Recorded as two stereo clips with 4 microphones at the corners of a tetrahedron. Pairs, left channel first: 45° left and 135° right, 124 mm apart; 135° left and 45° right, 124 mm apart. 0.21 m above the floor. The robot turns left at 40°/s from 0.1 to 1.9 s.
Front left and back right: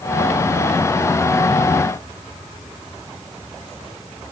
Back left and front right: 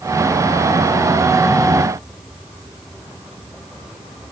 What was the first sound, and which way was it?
Only background noise.